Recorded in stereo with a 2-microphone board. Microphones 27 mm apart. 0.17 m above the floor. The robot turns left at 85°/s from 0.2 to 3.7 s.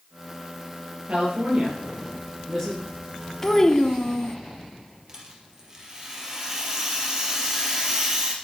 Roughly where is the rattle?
Right.